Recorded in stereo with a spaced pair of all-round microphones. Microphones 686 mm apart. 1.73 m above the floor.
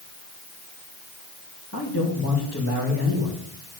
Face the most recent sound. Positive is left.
turn(degrees=20)  # may be behind; listen again after turning